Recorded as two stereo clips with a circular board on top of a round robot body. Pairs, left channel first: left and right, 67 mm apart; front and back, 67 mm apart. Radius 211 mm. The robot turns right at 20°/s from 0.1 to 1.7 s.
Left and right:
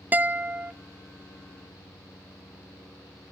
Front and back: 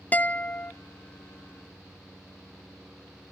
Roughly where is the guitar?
Ahead right.